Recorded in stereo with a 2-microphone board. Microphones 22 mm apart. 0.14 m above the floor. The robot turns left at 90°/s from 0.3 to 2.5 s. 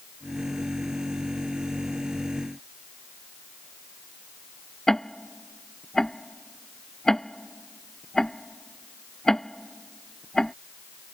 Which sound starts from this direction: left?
Ticking, at 4.9 s.